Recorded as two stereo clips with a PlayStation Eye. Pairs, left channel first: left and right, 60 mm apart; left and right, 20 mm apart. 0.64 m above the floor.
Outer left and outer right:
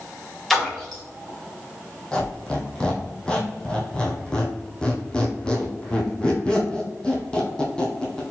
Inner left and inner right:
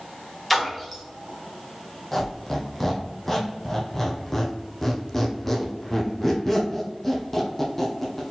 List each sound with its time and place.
0.5 s a splash: 5° left (ahead or behind), 1.5 m
2.1 s a squeak: 15° left (ahead or behind), 1.2 m